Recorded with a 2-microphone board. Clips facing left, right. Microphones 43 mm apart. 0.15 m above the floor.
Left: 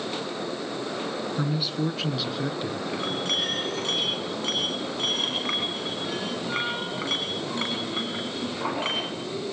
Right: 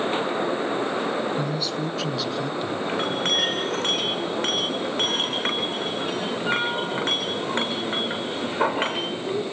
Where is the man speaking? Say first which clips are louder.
Right 1 dB; 10° left (ahead or behind), 1.8 m; by 2.8 s 5° left (ahead or behind), 2.5 m.